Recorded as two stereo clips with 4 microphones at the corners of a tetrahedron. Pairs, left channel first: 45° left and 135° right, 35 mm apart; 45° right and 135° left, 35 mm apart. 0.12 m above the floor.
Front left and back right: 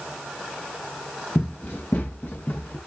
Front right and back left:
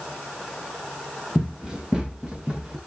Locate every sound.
1.4 s running footsteps: 60° left, 4 m; by 2.8 s 70° left, 4.5 m